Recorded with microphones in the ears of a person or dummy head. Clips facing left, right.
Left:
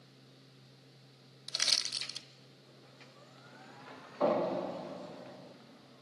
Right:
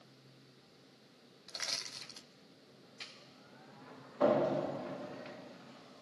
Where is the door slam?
10° right (ahead or behind), 1.5 m.